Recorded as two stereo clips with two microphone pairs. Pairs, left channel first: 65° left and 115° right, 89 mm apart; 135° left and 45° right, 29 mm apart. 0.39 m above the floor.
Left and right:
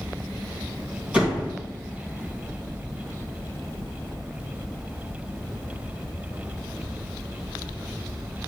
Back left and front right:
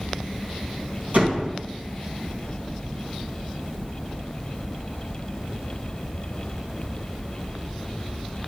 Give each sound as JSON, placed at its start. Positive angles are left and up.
{"t": 1.1, "sound": "a door slam", "azimuth_deg": -40, "distance_m": 3.5}